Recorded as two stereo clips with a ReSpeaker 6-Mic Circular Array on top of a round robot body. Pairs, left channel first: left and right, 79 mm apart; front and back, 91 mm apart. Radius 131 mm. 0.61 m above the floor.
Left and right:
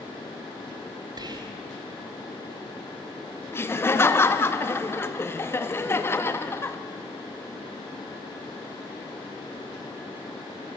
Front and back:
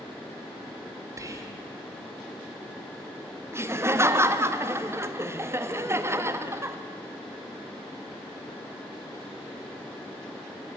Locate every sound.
1.2 s whispering: 125° right, 2.5 m
3.5 s laughter: 130° left, 1.5 m